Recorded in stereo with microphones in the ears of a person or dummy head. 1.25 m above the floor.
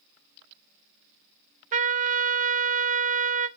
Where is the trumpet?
35° right (ahead or behind), 0.7 m.